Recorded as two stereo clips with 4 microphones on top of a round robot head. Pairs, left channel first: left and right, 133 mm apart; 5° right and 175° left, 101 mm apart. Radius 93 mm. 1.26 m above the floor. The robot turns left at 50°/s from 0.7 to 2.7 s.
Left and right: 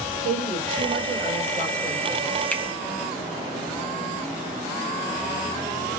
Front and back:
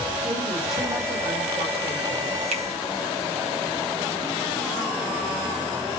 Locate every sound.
0.2 s a woman speaking: 100° right, 4 m; by 2.3 s straight behind, 4 m
2.5 s a finger snap: 170° left, 1.6 m; by 2.6 s 165° left, 1.6 m